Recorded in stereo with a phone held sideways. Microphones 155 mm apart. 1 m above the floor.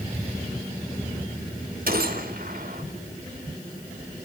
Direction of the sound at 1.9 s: 70° right (ahead or behind).